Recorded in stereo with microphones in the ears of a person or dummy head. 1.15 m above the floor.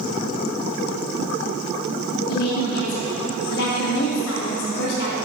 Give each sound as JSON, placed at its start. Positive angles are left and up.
{"t": 2.3, "sound": "a woman speaking", "side_deg": 60, "distance_m": 1.6}